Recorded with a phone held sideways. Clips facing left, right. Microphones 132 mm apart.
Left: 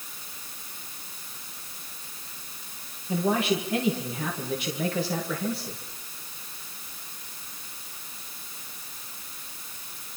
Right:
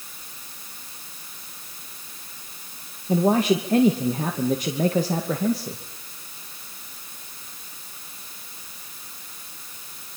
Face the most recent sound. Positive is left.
turn(degrees=-40)  # may be behind; listen again after turning